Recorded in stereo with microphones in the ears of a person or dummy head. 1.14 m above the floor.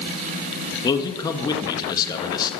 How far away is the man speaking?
About 2 m.